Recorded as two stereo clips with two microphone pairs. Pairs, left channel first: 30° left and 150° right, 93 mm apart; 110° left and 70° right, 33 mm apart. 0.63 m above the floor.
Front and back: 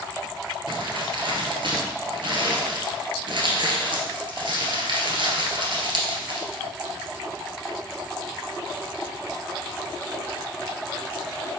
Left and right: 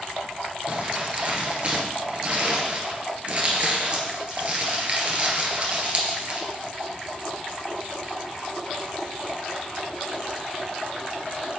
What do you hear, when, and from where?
0.7 s crumpling: 120° right, 1.8 m